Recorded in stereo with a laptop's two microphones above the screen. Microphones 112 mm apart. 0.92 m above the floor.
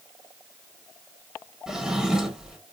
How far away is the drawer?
About 0.9 m.